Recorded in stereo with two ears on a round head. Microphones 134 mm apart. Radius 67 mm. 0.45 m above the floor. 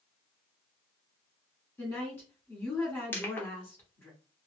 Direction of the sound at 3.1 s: 15° left (ahead or behind).